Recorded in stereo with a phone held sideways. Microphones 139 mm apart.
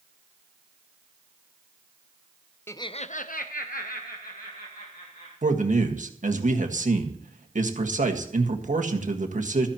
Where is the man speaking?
60° right (ahead or behind), 1.6 m.